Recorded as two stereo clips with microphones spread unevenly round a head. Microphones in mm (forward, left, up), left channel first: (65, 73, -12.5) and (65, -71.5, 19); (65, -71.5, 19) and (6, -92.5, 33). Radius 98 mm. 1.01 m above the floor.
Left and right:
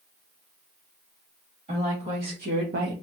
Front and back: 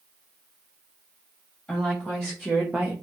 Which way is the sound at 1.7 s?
55° right.